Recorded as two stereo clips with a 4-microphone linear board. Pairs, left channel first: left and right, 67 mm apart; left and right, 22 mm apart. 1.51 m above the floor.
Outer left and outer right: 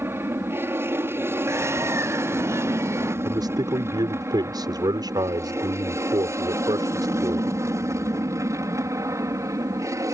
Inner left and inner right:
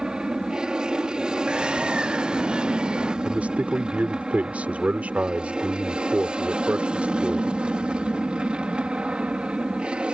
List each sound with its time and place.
0.0 s an aircraft: 35° right (ahead or behind); by 10.1 s 50° right (ahead or behind)
1.5 s a bird: 40° right (ahead or behind)
3.2 s a man speaking: 85° right